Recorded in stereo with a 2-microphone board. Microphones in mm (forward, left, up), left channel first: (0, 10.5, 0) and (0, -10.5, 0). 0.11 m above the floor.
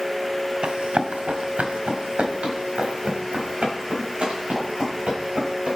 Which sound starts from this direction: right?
Running footsteps, at 0.6 s.